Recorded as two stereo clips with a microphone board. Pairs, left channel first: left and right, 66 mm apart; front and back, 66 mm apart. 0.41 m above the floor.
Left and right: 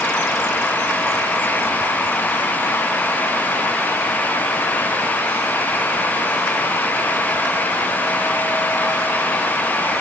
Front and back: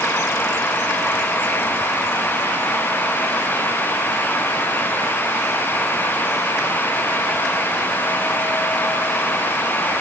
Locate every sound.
Only background noise.